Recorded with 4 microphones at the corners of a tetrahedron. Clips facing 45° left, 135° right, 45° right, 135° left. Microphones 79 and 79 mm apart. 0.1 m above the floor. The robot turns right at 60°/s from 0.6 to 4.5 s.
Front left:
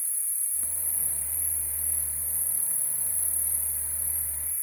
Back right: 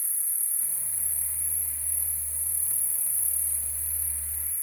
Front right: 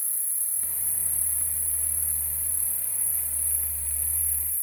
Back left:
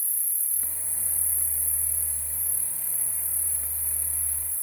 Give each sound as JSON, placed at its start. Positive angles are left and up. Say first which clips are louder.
{"t": 0.0, "sound": "an insect", "louder": "back right 2 dB, front right 1 dB", "azimuth_deg": -100, "distance_m": 1.6}